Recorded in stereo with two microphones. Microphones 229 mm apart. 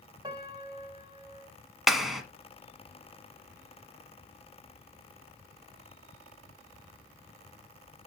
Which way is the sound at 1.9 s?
Centre (ahead or behind).